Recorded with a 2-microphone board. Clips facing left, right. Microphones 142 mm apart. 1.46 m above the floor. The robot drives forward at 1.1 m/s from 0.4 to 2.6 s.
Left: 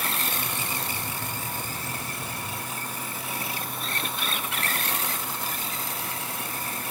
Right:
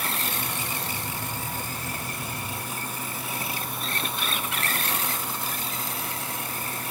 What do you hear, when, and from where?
Only background noise.